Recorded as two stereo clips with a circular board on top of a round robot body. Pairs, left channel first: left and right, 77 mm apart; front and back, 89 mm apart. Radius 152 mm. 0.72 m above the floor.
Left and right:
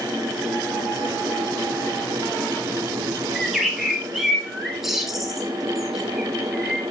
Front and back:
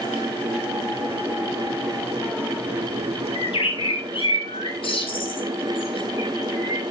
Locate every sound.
3.4 s a bird: 5° right, 1.9 m